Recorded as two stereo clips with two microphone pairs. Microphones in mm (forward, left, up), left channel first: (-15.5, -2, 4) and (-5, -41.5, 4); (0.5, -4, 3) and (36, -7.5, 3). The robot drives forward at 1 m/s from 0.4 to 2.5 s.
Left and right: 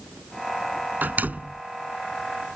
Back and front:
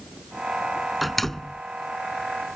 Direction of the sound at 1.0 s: 95° right.